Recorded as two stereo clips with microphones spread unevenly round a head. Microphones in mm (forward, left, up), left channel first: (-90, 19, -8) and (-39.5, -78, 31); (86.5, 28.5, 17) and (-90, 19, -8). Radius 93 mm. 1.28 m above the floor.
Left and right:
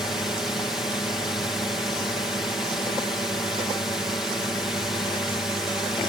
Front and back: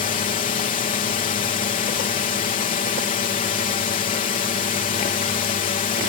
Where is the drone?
40° left.